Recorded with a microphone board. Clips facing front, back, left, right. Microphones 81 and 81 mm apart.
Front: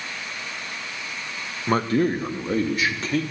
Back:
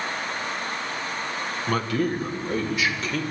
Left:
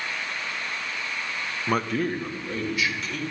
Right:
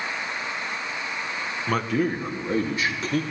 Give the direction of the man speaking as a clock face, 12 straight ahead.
11 o'clock.